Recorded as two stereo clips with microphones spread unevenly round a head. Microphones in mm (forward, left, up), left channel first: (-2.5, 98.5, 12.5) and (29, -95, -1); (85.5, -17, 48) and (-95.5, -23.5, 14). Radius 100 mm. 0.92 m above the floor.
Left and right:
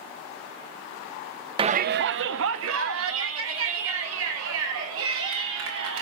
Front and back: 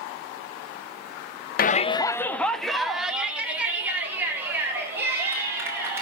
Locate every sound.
1.6 s a shout: 30° right, 0.6 m; by 6.0 s 100° right, 6 m